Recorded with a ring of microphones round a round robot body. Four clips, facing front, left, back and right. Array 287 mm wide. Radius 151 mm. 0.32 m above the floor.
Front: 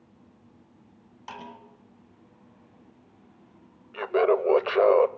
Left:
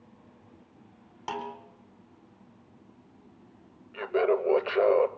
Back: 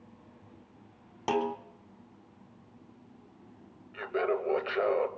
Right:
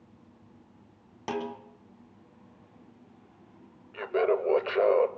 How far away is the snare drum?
About 3.5 m.